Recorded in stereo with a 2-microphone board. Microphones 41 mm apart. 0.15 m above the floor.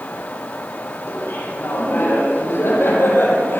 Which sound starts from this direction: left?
Laughter, at 1.1 s.